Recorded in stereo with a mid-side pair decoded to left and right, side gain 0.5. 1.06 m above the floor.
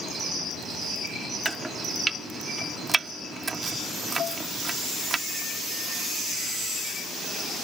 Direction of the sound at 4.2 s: 55° left.